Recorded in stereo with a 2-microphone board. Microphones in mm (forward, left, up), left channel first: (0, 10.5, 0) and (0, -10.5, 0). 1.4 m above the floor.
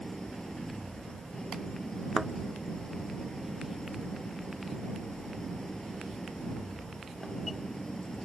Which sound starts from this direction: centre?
A thud, at 2.2 s.